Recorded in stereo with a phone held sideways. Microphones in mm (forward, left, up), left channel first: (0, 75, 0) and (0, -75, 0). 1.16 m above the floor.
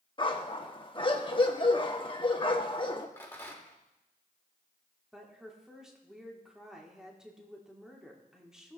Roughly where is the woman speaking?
Centre.